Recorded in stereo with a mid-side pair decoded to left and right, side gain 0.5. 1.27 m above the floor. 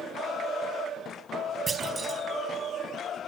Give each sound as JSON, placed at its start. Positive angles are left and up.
{"t": 1.7, "sound": "a clunk", "azimuth_deg": -30, "distance_m": 4.0}